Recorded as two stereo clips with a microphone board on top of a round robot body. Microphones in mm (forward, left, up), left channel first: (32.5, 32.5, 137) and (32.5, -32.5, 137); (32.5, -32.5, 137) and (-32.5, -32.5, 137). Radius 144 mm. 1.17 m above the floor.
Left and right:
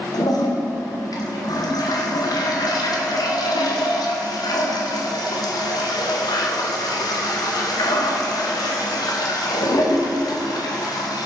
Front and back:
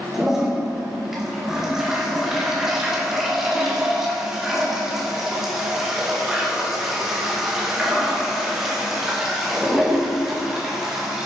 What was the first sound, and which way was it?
A toilet flushing, 95° left.